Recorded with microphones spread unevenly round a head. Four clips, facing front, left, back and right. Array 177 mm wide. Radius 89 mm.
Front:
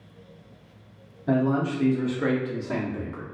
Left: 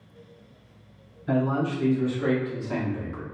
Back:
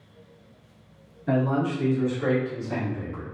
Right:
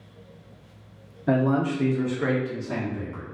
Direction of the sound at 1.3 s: 80° right.